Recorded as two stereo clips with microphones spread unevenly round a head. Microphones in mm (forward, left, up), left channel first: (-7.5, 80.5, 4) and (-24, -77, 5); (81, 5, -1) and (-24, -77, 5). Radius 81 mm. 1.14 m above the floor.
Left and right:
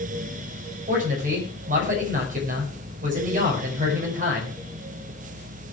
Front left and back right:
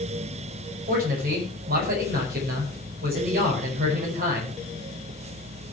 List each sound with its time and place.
0.9 s a man speaking: 135° right, 6 m